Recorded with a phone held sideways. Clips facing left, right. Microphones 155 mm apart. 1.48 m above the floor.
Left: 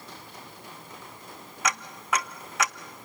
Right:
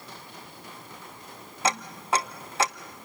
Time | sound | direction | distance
1.6 | ticking | 30° right (ahead or behind) | 0.6 m